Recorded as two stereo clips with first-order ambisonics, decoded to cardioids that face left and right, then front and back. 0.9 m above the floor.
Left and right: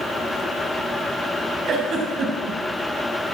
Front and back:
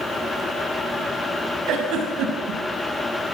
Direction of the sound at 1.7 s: 145° right.